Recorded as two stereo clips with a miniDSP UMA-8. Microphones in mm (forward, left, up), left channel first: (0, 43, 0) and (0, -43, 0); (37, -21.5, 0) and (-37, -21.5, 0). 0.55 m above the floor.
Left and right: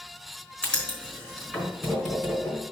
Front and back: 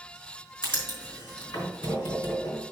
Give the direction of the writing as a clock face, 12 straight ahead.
12 o'clock.